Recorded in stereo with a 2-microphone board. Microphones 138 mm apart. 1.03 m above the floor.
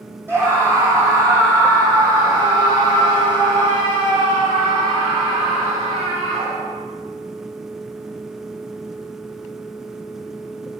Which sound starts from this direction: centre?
A scream, at 0.3 s.